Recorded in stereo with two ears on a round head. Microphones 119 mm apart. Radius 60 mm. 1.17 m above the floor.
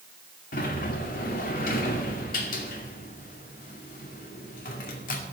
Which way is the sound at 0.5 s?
75° left (ahead or behind).